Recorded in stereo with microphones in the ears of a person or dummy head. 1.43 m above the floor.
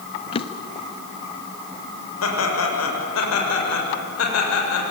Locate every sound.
0.3 s a drawer: 30° left (ahead or behind), 1.1 m
2.2 s laughter: 85° left, 7 m